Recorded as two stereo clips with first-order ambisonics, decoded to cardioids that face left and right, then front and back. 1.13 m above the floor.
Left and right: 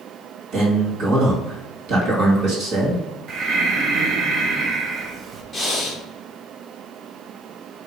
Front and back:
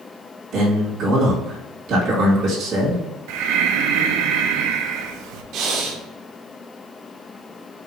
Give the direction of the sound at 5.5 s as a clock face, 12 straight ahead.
6 o'clock.